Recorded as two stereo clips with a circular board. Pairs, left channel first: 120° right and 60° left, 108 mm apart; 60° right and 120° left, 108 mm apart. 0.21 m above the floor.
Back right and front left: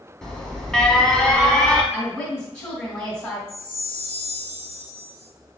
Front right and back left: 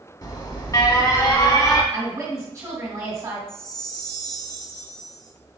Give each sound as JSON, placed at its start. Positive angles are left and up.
{"t": 0.2, "sound": "an alarm", "azimuth_deg": -40, "distance_m": 0.8}
{"t": 1.9, "sound": "a woman speaking", "azimuth_deg": 160, "distance_m": 1.7}
{"t": 3.5, "sound": "a chime", "azimuth_deg": -95, "distance_m": 1.0}